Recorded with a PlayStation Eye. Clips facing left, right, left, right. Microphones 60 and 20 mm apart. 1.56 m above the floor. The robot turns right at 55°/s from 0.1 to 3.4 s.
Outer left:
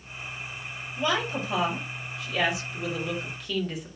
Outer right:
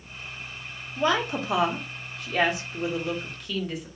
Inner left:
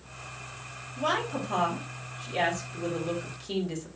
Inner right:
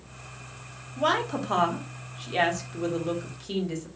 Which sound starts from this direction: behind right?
A woman speaking, at 1.0 s.